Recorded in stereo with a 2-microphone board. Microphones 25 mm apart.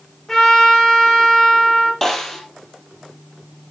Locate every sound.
0.3 s a trumpet: 20° left (ahead or behind), 7.5 m
2.0 s a snare drum: 15° left (ahead or behind), 3.5 m